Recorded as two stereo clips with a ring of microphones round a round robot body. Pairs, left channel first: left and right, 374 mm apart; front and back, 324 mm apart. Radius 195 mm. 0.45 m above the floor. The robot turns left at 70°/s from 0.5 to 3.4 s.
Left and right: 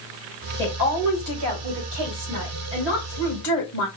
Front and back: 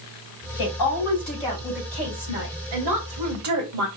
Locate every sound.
0.6 s a woman speaking: 15° right, 2.5 m; by 3.9 s 150° left, 2.5 m